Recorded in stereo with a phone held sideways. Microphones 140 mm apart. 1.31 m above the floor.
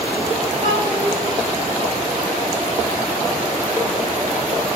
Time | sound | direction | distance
0.6 | a child speaking | 55° right (ahead or behind) | 2.5 m